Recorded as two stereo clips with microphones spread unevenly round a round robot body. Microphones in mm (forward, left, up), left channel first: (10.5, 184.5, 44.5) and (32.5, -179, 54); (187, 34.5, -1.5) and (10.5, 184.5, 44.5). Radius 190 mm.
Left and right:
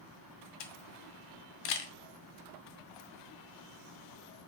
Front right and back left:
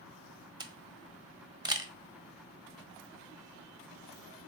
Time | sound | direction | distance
0.6 | a camera shutter | 65° left | 1.3 m